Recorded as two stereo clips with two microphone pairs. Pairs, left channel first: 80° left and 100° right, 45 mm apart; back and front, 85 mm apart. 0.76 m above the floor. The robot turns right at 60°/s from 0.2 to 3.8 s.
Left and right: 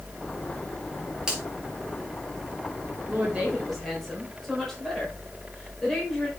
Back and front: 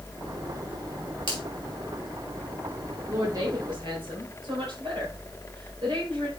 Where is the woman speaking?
50° right, 3.5 m; by 6.3 s 5° right, 3.5 m.